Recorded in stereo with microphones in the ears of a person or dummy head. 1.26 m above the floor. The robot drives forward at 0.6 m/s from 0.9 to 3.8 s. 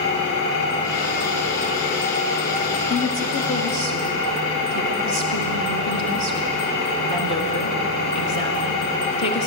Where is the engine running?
75° left (ahead or behind), 3 m; by 9.5 s 50° left (ahead or behind), 4 m.